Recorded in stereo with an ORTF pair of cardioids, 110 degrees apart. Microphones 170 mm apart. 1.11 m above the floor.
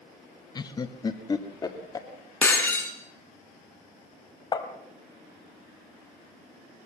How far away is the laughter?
About 1.0 m.